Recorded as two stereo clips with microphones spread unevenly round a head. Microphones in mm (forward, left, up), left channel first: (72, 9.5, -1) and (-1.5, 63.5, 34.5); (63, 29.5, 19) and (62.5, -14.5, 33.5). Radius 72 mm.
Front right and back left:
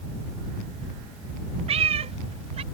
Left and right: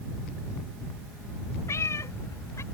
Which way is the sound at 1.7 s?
135° left.